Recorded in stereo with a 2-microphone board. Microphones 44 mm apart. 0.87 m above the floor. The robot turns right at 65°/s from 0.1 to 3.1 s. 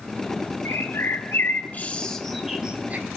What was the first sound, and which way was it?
A bird, 70° left (ahead or behind).